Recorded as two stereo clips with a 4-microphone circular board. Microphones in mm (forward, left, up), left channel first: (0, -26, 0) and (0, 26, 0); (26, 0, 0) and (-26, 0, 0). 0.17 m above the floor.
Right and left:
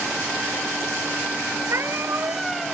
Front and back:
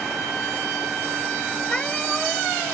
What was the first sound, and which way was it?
A cat meowing, 70° left.